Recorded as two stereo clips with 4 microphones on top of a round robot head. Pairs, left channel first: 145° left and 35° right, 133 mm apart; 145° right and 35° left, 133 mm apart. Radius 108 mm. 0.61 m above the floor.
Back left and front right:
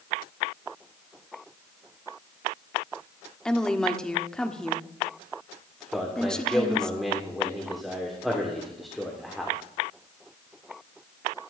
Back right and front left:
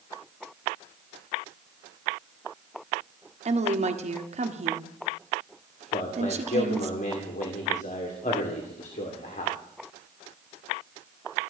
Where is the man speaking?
125° right, 2.5 m.